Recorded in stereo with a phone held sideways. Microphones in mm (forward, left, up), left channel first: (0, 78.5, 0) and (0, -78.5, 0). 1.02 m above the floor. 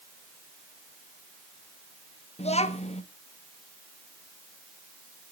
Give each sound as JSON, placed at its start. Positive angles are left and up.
{"t": 2.4, "sound": "a child speaking", "side_deg": 45, "distance_m": 1.1}